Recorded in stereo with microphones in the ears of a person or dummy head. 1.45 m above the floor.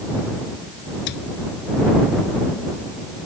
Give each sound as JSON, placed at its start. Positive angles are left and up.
{"t": 1.1, "sound": "a cupboard door", "side_deg": 60}